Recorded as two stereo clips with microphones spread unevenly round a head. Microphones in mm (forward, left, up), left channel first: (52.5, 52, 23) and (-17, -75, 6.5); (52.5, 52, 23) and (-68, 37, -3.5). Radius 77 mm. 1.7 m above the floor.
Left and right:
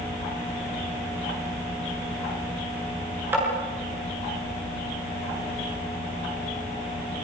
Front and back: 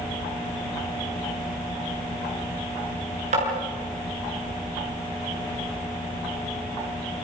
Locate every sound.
3.3 s tapping: 165° left, 7.5 m